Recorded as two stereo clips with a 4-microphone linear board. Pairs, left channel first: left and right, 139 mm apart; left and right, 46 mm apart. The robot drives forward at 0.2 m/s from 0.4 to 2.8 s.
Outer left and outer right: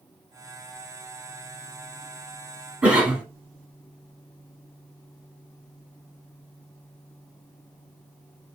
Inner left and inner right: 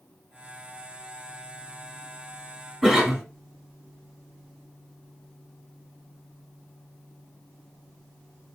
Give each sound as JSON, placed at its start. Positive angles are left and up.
{"t": 2.8, "sound": "a cough", "side_deg": -10, "distance_m": 1.0}